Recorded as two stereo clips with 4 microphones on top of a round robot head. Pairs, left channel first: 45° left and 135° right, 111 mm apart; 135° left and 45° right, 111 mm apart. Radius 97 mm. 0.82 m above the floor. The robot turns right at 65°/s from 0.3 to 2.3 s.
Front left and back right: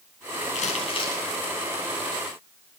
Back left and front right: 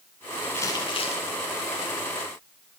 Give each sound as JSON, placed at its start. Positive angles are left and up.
{"t": 0.6, "sound": "crumpling", "azimuth_deg": 60, "distance_m": 8.0}